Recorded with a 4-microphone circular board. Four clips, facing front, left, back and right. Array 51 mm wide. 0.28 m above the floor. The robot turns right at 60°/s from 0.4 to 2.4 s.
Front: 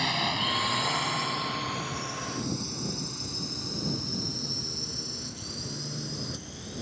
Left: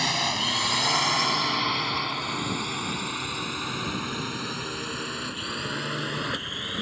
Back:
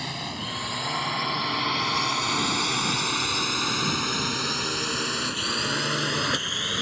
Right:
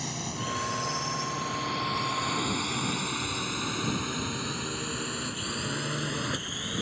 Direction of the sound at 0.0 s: 65° left.